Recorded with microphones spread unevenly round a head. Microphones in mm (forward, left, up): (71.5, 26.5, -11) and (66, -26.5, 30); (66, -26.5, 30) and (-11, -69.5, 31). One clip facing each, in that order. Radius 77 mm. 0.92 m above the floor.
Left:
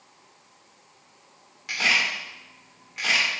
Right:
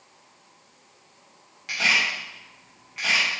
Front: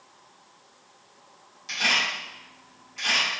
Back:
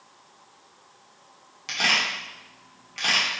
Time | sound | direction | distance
1.7 | a camera shutter | 165° left | 2 m